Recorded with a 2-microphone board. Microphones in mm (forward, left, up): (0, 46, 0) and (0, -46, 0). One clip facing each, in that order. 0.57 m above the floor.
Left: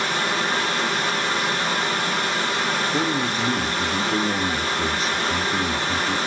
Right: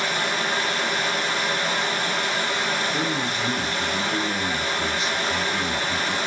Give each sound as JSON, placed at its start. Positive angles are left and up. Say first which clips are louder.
{"t": 0.0, "sound": "running water", "louder": "left 2 dB", "side_deg": 40, "distance_m": 4.5}
{"t": 2.9, "sound": "a man speaking", "louder": "left 3 dB", "side_deg": 40, "distance_m": 1.1}